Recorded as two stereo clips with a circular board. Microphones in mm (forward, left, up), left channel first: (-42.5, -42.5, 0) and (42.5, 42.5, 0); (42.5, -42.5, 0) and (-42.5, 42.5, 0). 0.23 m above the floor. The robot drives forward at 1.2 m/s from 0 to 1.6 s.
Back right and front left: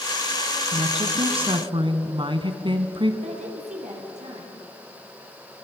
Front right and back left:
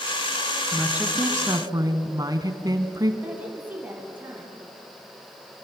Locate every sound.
0.7 s a woman speaking: 50° left, 2.5 m; by 3.1 s 80° left, 1.9 m
3.2 s a woman speaking: 60° left, 5.5 m